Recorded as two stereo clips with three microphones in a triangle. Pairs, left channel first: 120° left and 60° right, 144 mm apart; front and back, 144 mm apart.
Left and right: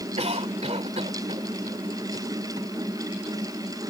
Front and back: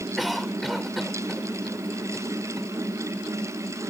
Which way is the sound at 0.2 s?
90° right.